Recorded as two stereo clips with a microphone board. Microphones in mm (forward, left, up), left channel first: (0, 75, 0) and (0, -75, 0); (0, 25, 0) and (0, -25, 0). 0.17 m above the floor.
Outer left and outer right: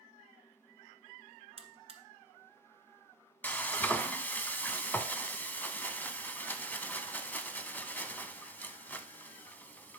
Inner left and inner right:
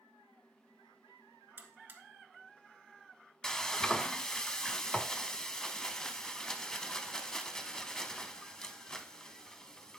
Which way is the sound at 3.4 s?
15° left (ahead or behind).